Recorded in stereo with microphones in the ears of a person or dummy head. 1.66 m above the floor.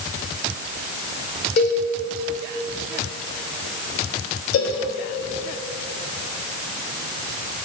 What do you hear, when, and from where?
1.6 s a cowbell: 45° left (ahead or behind), 1.0 m
4.5 s a cowbell: 85° left, 1.0 m